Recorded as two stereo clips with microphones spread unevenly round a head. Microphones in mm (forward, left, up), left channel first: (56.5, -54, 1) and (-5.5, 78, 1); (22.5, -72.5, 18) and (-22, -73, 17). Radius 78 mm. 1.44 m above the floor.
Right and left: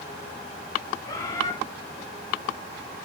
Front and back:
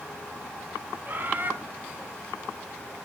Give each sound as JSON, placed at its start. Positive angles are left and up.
{"t": 1.1, "sound": "a bird", "azimuth_deg": -135, "distance_m": 3.0}